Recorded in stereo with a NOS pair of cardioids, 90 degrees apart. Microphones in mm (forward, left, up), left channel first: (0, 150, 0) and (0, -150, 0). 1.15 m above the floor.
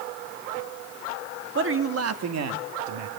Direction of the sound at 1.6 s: 40° right.